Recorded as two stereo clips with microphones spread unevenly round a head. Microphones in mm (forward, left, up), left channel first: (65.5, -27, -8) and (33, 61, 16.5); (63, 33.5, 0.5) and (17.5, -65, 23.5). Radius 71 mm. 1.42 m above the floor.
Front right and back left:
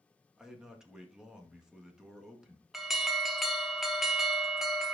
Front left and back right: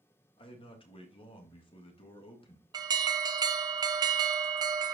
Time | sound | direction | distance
0.4 | a man speaking | 30° left | 2.0 m
2.7 | an alarm | 130° right | 0.9 m